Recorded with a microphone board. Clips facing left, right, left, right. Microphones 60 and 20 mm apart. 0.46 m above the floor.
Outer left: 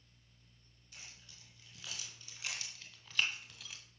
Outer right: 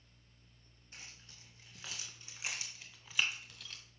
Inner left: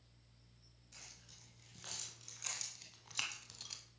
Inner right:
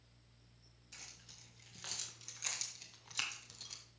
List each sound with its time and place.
0.9 s keys jangling: 35° right (ahead or behind), 4.5 m; by 3.8 s 10° left (ahead or behind), 1.8 m